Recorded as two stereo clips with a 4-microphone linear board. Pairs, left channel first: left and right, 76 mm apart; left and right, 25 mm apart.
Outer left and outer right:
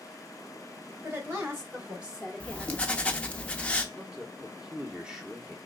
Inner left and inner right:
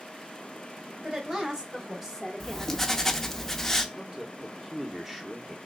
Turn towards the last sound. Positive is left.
turn(degrees=-10)  # may be behind; listen again after turning